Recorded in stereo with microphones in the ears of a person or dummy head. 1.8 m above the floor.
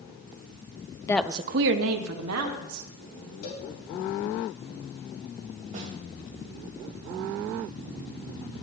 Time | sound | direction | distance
1.1 | a woman speaking | 15° left (ahead or behind) | 0.6 m
3.4 | a cowbell | 55° left (ahead or behind) | 2.5 m
5.7 | a snare drum | 35° right (ahead or behind) | 2.5 m